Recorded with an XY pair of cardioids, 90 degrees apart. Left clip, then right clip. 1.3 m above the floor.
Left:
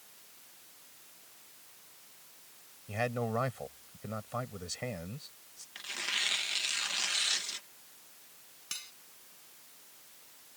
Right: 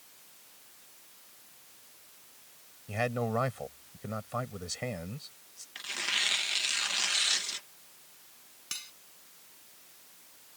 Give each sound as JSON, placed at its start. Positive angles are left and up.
{"t": 2.9, "sound": "a man speaking", "azimuth_deg": -15}
{"t": 5.8, "sound": "tearing paper", "azimuth_deg": -20}
{"t": 8.7, "sound": "cutlery clinking", "azimuth_deg": -10}